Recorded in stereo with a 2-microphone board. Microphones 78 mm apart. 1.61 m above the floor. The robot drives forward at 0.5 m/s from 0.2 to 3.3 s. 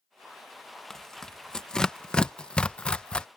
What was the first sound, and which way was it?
Tearing paper, 5° left (ahead or behind).